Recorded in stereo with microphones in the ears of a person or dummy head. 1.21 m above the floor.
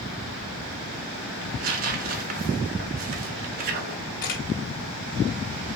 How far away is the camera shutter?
About 1.3 m.